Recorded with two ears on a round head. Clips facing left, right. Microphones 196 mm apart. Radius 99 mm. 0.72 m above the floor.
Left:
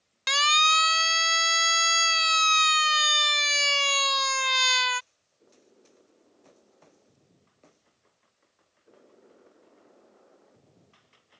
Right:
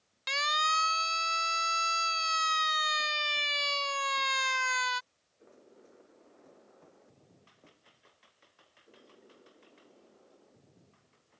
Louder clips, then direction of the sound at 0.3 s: Left 5 dB; 60° left (ahead or behind).